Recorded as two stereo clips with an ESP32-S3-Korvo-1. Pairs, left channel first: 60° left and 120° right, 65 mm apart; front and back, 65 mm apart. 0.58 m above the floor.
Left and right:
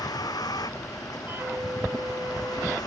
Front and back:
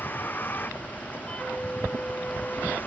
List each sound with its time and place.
0.0 s a vehicle: 60° left
1.3 s a flute: 70° right